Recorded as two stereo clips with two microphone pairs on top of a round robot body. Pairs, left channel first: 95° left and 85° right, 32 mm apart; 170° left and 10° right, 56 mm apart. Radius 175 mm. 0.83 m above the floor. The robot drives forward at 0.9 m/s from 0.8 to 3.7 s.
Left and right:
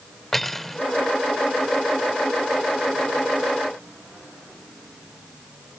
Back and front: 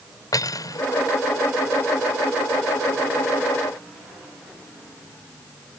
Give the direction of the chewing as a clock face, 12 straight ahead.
I don't hear chewing.